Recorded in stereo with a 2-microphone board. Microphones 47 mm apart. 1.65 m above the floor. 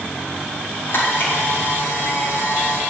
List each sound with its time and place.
0.9 s a camera shutter: 55° left (ahead or behind), 4.5 m